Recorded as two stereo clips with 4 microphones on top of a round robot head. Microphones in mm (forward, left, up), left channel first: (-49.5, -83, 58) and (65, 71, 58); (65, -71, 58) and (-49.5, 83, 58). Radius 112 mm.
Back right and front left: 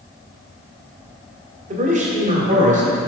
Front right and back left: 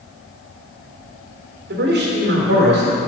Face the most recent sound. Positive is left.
turn(degrees=100)